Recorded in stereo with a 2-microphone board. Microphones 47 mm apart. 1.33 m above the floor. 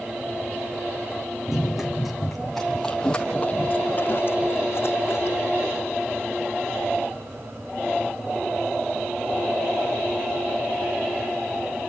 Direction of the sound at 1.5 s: 10° right (ahead or behind).